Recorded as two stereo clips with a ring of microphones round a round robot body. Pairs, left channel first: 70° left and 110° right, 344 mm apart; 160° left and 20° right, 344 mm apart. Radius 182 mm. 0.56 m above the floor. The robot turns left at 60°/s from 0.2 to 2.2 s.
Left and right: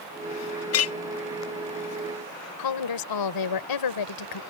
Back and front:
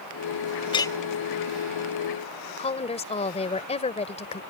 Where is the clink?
90° left; by 0.9 s 75° left.